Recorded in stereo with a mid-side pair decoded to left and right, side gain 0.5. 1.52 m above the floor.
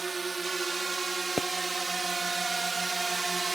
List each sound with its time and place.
0.0 s a drone: 25° right
1.4 s a pop: 30° left